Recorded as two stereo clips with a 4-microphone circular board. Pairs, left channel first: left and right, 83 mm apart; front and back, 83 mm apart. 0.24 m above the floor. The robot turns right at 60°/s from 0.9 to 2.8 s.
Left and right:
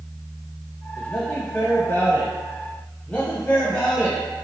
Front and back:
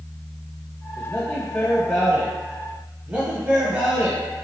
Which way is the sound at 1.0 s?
25° left.